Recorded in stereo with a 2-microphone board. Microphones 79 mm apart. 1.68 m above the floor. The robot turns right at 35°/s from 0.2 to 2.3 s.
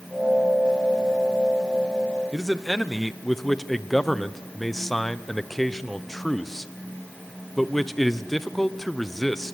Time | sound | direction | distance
2.3 | a man speaking | centre (ahead or behind) | 0.9 m